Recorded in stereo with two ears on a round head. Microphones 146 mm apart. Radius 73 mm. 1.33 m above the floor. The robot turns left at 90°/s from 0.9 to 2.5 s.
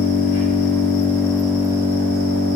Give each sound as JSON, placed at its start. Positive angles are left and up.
{"t": 0.0, "sound": "an engine running", "azimuth_deg": 50, "distance_m": 5.5}